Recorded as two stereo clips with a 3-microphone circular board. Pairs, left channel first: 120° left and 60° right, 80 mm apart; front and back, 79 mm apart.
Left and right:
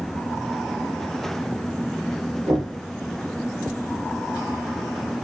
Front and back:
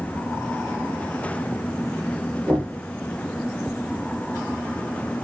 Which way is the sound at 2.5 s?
70° right.